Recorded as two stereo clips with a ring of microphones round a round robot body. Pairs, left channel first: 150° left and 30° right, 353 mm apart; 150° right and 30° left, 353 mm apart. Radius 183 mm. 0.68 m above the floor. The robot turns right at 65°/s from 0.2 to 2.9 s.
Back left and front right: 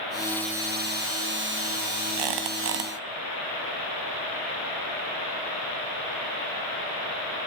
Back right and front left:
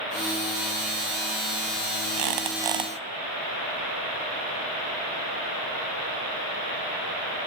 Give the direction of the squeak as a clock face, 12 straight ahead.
12 o'clock.